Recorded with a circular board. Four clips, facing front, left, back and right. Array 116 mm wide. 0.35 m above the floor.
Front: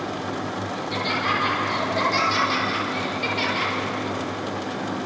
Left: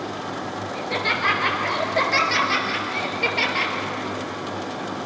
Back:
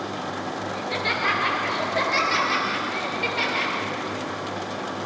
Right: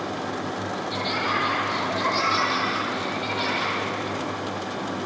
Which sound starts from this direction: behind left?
Laughter, at 0.7 s.